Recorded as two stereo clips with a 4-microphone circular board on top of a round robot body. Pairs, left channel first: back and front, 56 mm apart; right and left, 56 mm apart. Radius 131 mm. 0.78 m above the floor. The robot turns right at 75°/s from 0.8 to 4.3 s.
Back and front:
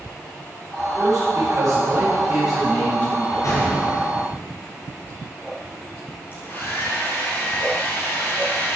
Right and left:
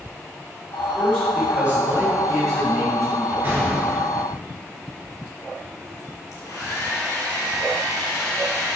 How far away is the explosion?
About 5 m.